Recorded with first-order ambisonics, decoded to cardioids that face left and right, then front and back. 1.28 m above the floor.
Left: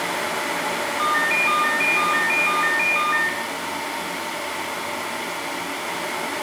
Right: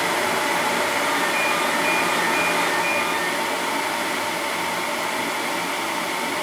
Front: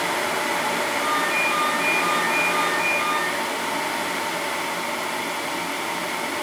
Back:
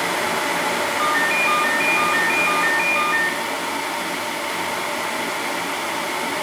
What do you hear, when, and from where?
1.0 s a ringtone: 120° left, 4 m